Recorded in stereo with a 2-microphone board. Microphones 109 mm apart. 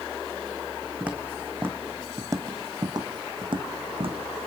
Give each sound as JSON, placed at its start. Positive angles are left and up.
{"t": 1.0, "sound": "footsteps", "side_deg": -10, "distance_m": 2.0}